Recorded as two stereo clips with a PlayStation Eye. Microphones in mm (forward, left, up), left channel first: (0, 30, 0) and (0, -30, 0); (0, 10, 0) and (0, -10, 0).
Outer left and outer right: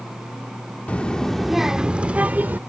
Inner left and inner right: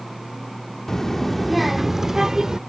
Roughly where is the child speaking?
Left.